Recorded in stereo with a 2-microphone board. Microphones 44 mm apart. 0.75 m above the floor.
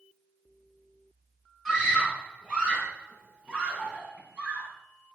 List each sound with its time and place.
1.6 s a scream: 20° right (ahead or behind), 9 m; by 4.7 s 30° right (ahead or behind), 6 m